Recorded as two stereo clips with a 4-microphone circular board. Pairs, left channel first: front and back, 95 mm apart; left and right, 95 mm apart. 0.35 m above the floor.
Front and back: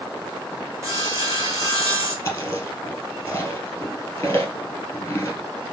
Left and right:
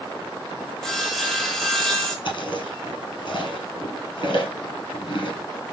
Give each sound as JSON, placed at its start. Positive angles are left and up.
{"t": 0.8, "sound": "sawing", "azimuth_deg": 170, "distance_m": 1.3}
{"t": 2.2, "sound": "chewing", "azimuth_deg": 65, "distance_m": 1.2}